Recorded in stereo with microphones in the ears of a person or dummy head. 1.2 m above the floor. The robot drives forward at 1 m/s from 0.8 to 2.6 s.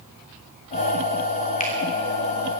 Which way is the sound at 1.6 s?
35° left (ahead or behind).